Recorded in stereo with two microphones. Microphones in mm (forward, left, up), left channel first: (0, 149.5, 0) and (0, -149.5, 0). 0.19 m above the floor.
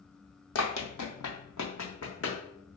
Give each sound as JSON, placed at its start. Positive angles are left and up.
{"t": 0.6, "sound": "running footsteps", "side_deg": 60, "distance_m": 0.6}